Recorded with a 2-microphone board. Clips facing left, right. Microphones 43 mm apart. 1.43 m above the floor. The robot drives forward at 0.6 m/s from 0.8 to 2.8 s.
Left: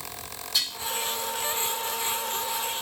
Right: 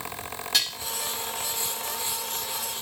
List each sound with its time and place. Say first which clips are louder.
0.5 s dishes clattering: right 2 dB; 75° right (ahead or behind), 3.5 m